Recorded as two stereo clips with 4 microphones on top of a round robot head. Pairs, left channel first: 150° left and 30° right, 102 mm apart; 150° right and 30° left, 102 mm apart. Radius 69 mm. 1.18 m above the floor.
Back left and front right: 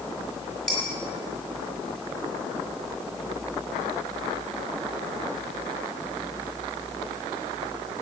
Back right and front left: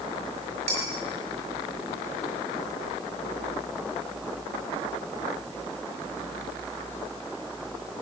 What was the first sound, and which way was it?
Dishes clattering, 60° left.